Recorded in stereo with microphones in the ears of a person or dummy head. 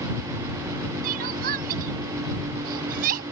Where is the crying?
50° right (ahead or behind).